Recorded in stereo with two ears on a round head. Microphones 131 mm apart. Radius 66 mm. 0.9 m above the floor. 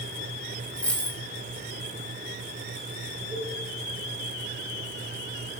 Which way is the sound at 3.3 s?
Centre (ahead or behind).